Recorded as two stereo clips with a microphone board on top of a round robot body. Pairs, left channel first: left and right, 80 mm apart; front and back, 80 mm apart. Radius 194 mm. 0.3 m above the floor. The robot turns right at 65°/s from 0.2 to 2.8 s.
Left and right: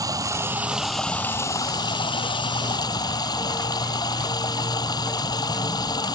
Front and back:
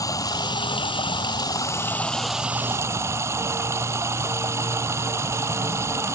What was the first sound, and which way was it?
Running water, 45° right.